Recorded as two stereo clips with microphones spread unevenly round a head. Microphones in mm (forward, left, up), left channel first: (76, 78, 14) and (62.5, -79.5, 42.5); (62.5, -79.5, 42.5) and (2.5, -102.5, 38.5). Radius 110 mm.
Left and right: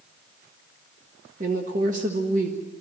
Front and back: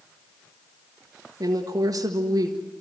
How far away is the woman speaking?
About 1.7 m.